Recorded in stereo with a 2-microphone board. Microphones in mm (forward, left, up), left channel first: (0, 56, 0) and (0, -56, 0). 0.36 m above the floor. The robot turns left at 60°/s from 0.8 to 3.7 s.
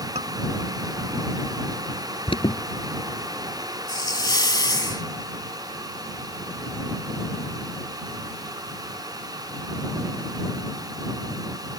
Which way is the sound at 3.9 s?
35° left (ahead or behind).